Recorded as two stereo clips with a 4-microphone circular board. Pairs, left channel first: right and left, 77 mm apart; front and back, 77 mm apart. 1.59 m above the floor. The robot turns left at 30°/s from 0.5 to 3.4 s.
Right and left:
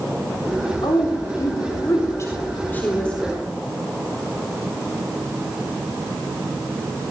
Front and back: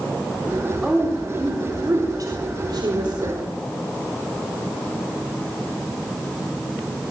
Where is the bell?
I don't hear a bell.